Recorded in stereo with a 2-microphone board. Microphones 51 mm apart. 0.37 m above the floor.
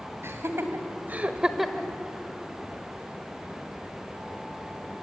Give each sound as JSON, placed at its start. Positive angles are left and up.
{"t": 0.2, "sound": "laughter", "side_deg": -65, "distance_m": 2.5}